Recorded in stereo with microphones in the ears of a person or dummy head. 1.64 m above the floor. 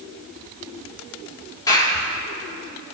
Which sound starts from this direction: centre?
A clap, at 1.7 s.